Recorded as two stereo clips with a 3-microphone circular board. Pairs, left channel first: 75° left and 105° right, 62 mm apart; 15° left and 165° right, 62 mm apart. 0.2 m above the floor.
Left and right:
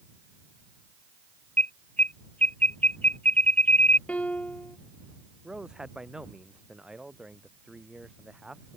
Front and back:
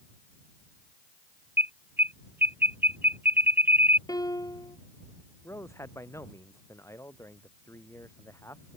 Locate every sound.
1.6 s an alarm: 135° left
4.1 s a piano: 5° left
5.4 s a man speaking: 30° right